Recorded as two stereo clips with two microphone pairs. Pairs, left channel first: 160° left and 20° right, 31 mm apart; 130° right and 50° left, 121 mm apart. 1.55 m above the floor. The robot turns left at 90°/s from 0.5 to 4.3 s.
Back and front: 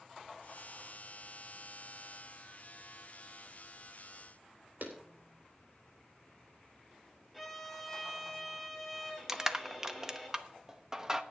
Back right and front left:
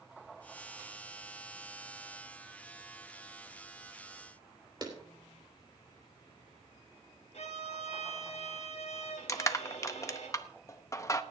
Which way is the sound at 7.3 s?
100° right.